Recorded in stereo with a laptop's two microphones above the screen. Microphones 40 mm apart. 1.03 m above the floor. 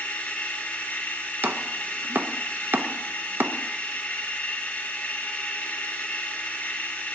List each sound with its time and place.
0.0 s a machine running: 35° left (ahead or behind), 1.1 m
1.4 s chopping: 55° right (ahead or behind), 0.7 m